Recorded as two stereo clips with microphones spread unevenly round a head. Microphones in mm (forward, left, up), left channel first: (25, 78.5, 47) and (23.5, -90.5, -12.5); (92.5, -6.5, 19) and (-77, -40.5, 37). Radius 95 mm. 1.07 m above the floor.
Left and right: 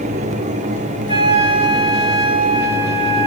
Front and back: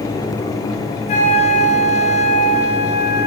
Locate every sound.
1.1 s a flute: 35° right, 3 m